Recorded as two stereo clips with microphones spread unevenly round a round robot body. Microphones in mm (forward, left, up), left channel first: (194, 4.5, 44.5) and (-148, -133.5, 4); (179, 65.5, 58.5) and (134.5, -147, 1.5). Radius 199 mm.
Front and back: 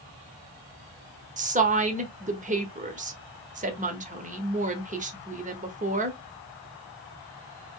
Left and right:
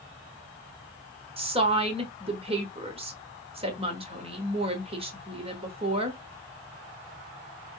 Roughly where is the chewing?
No chewing in this recording.